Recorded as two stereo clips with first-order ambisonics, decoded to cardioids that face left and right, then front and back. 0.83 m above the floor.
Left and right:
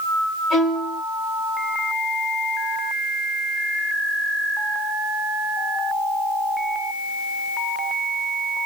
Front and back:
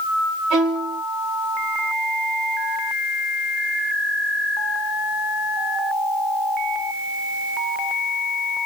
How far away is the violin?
About 1.3 m.